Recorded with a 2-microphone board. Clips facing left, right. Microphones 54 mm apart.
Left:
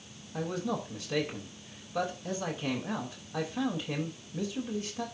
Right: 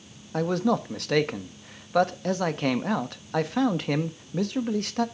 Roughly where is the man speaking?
Right.